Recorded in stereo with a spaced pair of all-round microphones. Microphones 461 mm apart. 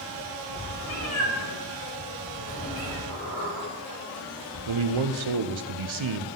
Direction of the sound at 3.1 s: 50° left (ahead or behind).